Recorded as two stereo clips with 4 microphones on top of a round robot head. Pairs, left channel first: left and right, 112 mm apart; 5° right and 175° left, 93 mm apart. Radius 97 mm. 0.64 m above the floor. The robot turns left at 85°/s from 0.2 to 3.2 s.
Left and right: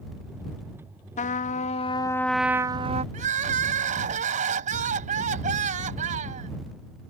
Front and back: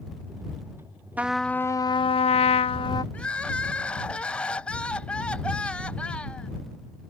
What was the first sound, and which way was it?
A trumpet, 100° left.